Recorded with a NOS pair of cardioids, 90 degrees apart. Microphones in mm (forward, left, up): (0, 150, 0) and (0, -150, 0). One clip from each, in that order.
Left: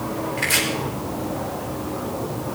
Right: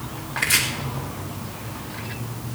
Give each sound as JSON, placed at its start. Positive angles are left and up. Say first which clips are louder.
{"t": 0.4, "sound": "chopping", "louder": "right 1 dB", "azimuth_deg": -20, "distance_m": 3.5}